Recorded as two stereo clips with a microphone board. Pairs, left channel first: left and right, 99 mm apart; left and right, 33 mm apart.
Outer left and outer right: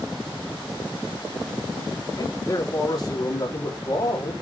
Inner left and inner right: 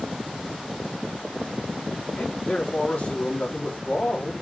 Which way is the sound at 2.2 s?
45° left (ahead or behind).